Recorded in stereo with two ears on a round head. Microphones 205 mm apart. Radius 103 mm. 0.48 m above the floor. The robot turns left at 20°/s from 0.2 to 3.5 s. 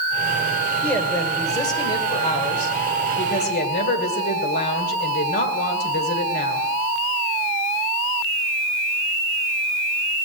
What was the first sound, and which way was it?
A woman speaking, 175° left.